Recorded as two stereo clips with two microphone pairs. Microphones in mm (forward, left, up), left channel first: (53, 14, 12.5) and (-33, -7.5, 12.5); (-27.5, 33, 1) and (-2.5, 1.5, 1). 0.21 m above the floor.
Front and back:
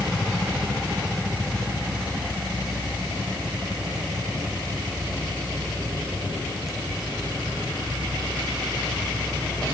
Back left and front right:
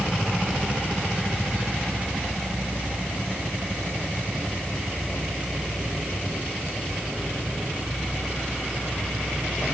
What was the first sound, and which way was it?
Only background noise.